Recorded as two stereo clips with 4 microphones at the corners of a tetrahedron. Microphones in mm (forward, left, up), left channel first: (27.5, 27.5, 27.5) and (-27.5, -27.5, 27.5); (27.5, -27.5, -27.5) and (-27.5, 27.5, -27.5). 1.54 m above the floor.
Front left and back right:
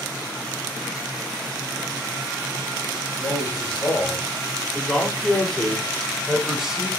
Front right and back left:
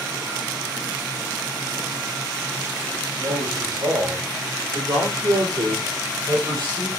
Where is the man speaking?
105° left, 5 m; by 6.9 s 145° left, 3 m.